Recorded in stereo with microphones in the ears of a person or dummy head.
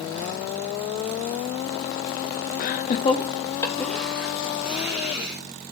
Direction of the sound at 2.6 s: 55° left (ahead or behind).